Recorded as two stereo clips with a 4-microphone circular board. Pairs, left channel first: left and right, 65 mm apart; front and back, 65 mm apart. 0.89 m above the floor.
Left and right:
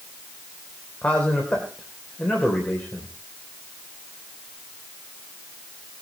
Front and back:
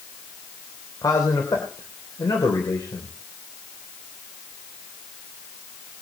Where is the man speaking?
20° left, 3 m.